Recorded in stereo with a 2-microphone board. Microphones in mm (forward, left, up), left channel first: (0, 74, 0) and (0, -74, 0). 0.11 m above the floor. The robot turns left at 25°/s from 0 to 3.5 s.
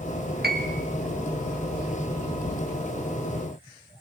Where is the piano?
90° right, 3 m; by 0.8 s 80° right, 3 m.